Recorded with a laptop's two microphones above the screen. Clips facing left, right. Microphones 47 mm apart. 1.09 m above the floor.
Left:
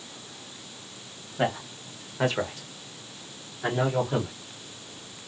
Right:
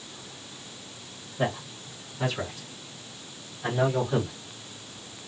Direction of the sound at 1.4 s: 55° left (ahead or behind).